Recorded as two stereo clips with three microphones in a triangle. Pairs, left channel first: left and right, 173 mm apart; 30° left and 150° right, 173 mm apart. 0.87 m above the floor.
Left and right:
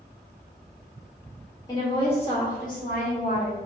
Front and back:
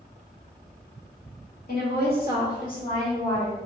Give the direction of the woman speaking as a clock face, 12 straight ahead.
11 o'clock.